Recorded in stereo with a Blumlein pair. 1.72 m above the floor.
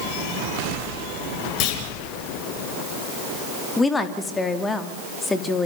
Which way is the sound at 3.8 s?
10° left.